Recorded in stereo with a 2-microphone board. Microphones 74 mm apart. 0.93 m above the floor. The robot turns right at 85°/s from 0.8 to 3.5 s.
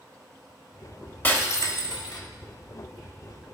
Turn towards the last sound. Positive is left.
turn(degrees=-135)